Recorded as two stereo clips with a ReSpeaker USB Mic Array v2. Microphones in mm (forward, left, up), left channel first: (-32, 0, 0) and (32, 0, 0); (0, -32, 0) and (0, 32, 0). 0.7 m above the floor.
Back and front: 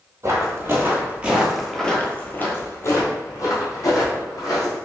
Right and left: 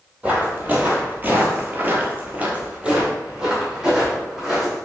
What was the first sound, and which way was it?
Footsteps, 30° left.